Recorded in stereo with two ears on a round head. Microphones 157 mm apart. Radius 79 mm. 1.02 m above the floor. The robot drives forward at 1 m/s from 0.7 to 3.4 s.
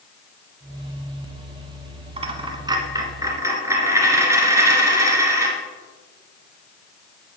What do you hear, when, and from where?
2.2 s a dropped coin: 30° right (ahead or behind), 1.2 m; by 5.5 s 15° right (ahead or behind), 2 m